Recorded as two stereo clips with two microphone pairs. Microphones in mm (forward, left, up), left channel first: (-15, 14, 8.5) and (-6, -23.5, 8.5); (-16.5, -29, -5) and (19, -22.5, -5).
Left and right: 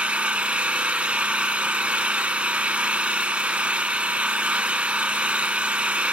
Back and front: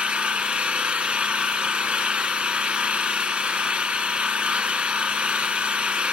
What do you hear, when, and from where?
0.0 s an engine running: 30° right, 0.9 m